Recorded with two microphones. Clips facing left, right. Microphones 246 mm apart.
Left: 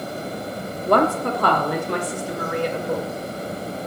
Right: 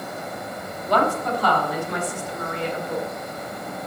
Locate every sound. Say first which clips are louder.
0.9 s a woman speaking: left 3 dB; 55° left (ahead or behind), 1.0 m; by 3.1 s 70° left (ahead or behind), 2.5 m